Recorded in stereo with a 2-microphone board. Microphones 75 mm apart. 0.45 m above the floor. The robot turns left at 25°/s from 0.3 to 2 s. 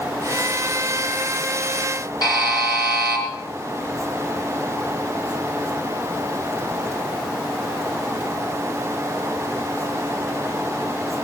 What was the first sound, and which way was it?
A buzzer, 60° left (ahead or behind).